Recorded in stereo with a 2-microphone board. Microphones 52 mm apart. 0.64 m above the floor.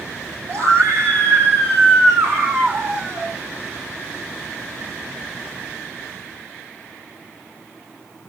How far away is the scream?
About 6 m.